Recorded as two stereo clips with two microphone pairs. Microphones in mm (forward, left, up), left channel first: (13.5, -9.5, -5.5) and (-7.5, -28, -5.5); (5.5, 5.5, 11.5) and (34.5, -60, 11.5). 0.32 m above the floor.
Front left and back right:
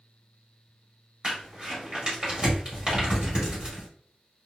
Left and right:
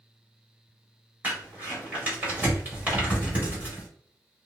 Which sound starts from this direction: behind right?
Crumpling, at 1.2 s.